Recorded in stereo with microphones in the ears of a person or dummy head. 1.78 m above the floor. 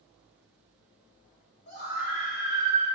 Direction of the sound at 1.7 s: 55° left (ahead or behind).